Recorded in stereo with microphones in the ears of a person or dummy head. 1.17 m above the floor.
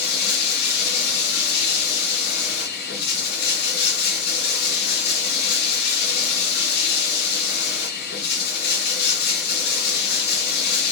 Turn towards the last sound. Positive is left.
turn(degrees=60)  # may be behind; listen again after turning